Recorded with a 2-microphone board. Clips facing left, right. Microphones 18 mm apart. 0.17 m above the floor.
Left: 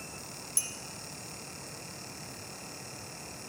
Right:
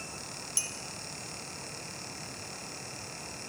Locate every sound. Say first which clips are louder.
0.6 s a clink: right 2 dB; 25° right (ahead or behind), 0.7 m